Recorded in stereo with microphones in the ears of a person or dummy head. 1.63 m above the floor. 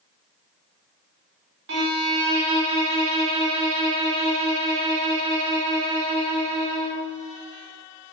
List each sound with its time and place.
1.7 s a violin: 60° right (ahead or behind), 1.0 m